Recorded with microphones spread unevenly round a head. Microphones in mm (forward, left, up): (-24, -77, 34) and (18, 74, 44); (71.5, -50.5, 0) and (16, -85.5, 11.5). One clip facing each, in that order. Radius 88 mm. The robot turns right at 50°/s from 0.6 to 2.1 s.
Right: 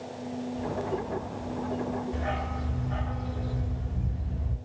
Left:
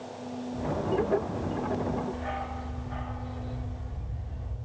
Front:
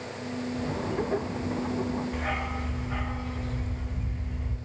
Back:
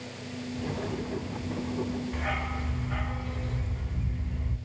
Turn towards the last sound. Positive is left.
turn(degrees=-60)